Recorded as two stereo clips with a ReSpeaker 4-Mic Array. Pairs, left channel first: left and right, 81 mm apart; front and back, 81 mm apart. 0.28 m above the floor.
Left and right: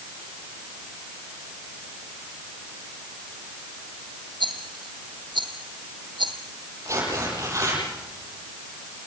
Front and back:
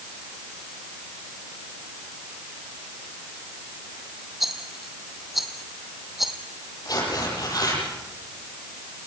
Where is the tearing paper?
40° right, 10 m.